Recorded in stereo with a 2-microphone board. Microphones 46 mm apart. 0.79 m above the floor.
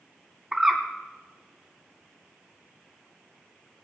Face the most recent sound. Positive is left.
turn(degrees=-15)  # may be behind; listen again after turning